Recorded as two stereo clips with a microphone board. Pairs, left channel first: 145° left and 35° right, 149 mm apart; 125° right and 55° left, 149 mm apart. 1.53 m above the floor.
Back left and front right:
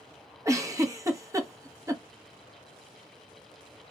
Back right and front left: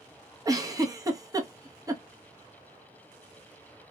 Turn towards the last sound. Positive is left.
turn(degrees=15)